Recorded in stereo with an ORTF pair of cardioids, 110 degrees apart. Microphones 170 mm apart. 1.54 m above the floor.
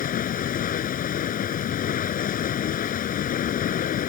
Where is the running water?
55° left.